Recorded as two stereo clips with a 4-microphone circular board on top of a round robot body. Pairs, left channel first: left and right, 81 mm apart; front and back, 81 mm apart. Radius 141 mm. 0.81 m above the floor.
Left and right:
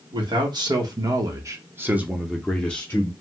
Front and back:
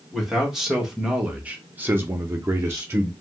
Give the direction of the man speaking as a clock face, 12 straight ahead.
3 o'clock.